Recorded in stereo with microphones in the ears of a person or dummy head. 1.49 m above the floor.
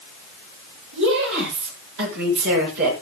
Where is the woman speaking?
65° right (ahead or behind), 9 m; by 2.9 s 55° right (ahead or behind), 7 m.